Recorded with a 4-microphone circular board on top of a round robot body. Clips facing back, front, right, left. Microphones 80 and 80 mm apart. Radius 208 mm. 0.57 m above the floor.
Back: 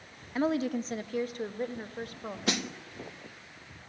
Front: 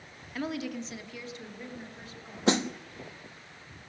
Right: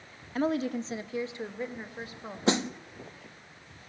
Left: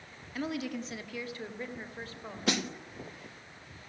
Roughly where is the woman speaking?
Behind right.